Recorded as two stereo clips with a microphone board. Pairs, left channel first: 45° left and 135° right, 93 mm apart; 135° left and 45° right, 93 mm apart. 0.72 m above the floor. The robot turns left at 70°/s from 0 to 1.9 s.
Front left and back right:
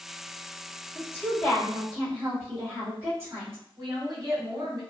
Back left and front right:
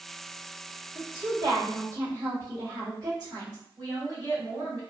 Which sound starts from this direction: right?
A woman speaking, at 3.8 s.